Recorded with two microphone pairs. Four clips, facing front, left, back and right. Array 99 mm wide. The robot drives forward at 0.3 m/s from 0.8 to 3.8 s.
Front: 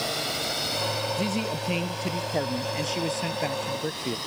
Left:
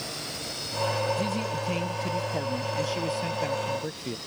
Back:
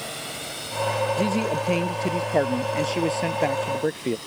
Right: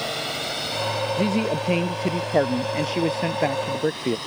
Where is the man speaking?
125° right; by 4.2 s 135° right.